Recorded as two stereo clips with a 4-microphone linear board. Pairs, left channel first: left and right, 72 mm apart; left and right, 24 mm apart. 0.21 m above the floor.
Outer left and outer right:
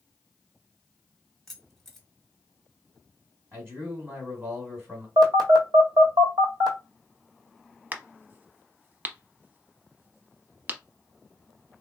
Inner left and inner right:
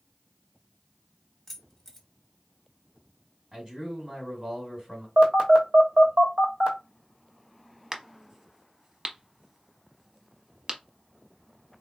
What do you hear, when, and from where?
1.5 s keys jangling: 5° left (ahead or behind), 1.0 m
3.5 s a man speaking: 35° right (ahead or behind), 1.6 m
5.2 s a phone buzzing: 75° right (ahead or behind), 1.1 m
7.9 s a crack: 25° right (ahead or behind), 0.6 m